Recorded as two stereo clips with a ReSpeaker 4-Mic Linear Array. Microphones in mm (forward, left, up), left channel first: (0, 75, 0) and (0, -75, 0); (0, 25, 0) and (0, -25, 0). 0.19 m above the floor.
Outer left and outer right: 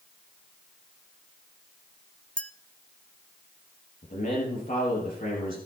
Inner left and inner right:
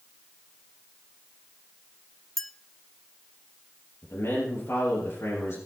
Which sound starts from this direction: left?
A man speaking, at 4.0 s.